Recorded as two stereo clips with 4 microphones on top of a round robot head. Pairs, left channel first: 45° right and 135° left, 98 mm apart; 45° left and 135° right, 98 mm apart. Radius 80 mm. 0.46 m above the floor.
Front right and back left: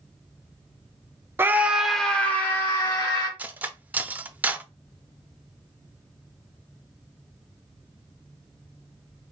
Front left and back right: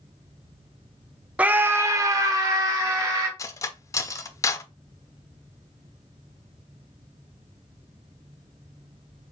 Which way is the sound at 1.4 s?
165° left.